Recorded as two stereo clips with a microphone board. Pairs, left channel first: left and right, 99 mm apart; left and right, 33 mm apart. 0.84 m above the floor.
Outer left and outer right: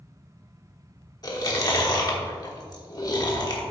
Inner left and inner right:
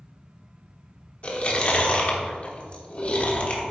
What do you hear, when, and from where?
1.2 s chewing: 40° left (ahead or behind), 1.3 m